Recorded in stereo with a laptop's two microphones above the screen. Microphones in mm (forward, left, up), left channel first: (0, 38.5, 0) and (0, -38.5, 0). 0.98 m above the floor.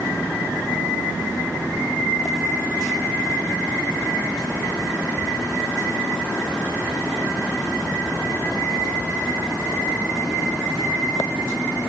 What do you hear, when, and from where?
Only background noise.